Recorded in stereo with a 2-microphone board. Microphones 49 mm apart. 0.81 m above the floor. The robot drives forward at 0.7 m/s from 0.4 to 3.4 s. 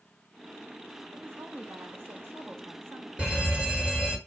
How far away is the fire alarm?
About 1.4 m.